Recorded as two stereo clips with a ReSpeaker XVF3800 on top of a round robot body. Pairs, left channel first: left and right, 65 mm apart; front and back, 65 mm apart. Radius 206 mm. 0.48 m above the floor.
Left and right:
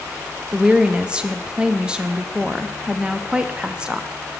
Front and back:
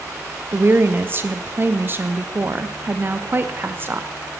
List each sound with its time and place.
0.5 s a woman speaking: 155° right, 0.8 m